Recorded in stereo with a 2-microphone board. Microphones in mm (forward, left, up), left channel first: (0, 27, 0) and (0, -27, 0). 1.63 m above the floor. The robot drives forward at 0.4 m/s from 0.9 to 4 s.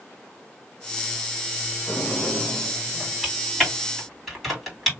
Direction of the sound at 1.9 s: 25° left (ahead or behind).